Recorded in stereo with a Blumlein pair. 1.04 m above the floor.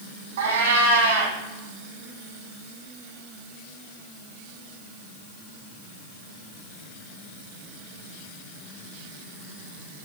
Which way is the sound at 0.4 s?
65° right.